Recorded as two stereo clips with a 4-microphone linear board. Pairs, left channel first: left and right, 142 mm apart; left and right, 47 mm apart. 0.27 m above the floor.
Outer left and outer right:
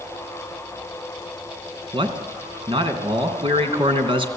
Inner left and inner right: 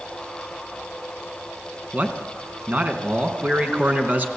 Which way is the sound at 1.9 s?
40° right (ahead or behind).